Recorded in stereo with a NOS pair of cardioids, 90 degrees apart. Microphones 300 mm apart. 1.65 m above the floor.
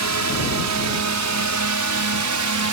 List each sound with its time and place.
0.0 s a drone: 70° right; by 2.7 s 80° right